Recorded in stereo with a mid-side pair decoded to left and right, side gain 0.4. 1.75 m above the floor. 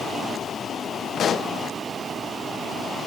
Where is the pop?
60° left, 0.6 m.